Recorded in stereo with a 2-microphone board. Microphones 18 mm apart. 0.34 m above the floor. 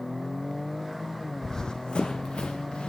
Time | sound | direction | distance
1.4 | running footsteps | 20° left (ahead or behind) | 0.5 m